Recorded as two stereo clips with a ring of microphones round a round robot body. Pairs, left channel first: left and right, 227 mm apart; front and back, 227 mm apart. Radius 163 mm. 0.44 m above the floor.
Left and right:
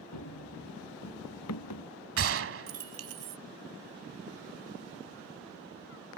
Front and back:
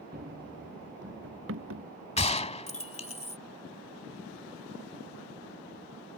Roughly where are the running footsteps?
Behind left.